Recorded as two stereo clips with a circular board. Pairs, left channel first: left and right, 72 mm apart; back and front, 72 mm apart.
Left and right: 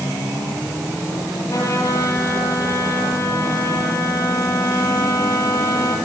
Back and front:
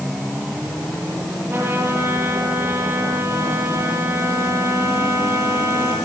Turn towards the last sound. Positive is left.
turn(degrees=55)